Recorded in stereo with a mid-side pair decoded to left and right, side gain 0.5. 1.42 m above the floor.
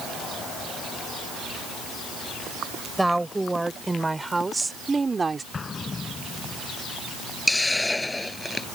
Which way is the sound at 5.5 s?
30° left.